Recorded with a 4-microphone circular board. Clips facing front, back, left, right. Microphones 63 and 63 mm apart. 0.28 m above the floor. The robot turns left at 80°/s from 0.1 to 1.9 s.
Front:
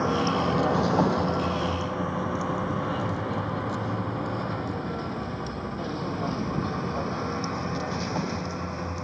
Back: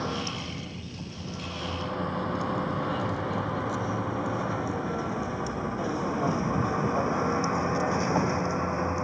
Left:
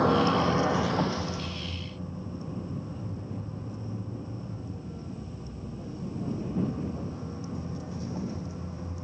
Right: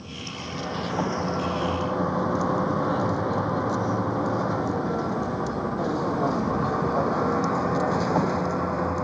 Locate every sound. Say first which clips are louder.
0.0 s a vehicle: front 9 dB, left 14 dB; 70° left; by 9.1 s 110° right